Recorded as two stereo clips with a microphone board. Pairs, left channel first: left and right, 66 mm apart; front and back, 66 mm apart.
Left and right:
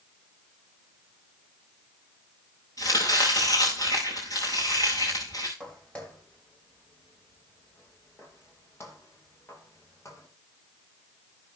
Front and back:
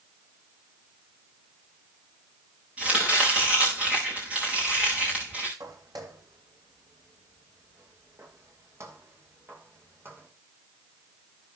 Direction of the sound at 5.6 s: 165° left.